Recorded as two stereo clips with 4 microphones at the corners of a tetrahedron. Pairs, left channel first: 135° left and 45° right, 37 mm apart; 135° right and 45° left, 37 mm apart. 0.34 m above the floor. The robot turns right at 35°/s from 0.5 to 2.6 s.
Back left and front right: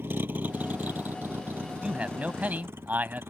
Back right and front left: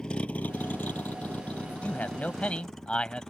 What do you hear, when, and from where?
0.0 s a vehicle: 60° right; by 3.3 s 55° right
1.6 s a man speaking: 105° right; by 3.2 s 70° right